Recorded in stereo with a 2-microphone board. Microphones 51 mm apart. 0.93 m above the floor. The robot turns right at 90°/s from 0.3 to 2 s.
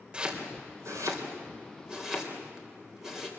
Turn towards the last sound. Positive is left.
turn(degrees=-5)  # may be behind; listen again after turning